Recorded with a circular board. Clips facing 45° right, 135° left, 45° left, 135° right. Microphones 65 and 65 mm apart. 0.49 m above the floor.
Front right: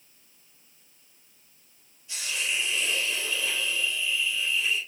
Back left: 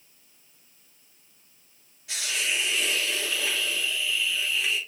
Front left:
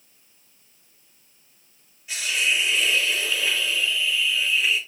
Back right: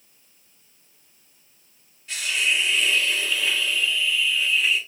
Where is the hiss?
125° left, 2 m.